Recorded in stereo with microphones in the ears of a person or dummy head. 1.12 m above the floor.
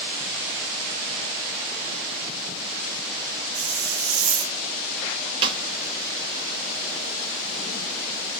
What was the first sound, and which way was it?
A hiss, 75° right (ahead or behind).